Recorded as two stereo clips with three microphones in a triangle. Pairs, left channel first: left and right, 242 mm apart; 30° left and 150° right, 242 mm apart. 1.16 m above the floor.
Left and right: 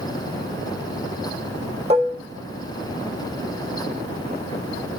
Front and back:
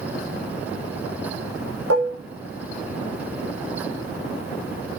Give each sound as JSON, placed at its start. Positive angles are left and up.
{"t": 1.9, "sound": "dishes clattering", "azimuth_deg": -155, "distance_m": 1.0}